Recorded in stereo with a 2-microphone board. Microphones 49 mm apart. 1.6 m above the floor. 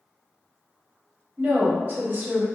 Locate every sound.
1.4 s a woman speaking: 40° right (ahead or behind), 0.9 m